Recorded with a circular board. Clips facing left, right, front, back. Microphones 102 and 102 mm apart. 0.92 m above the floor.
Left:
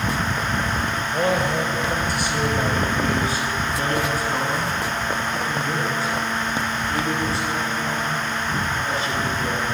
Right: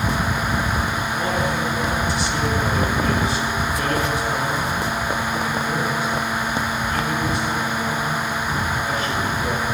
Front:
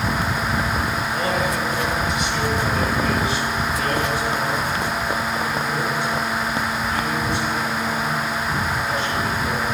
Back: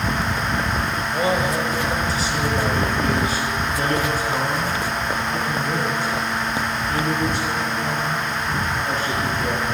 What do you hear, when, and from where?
1.1 s a man speaking: 115° left, 4.5 m; by 9.7 s 145° left, 17 m